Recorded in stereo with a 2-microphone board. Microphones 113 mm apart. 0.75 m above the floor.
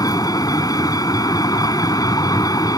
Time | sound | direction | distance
0.0 | a vehicle | 35° left (ahead or behind) | ?